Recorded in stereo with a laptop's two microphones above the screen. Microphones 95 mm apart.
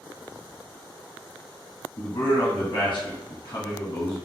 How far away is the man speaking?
About 1.1 m.